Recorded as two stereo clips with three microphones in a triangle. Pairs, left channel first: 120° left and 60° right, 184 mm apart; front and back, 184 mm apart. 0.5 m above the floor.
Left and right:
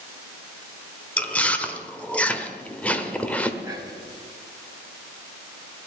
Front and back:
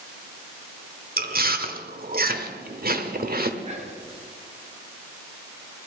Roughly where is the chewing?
Behind.